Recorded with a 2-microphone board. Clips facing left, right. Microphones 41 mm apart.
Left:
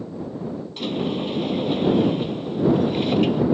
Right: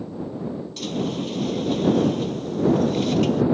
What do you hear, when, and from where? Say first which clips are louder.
0.8 s a sliding door: left 2 dB; 20° left (ahead or behind)